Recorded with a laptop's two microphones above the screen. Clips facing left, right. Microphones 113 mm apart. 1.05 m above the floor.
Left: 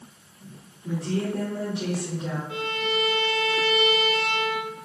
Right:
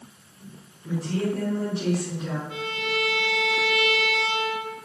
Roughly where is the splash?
I don't hear a splash.